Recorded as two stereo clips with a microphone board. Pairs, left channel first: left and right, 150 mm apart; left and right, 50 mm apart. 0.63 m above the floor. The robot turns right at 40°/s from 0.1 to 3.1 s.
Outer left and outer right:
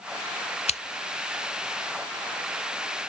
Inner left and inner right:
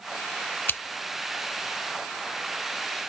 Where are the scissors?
50° left (ahead or behind), 0.5 m; by 0.8 s 45° left (ahead or behind), 0.5 m.